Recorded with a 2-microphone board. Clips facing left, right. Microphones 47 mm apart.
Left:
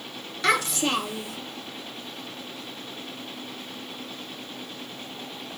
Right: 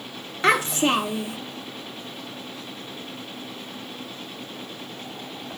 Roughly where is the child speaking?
Right.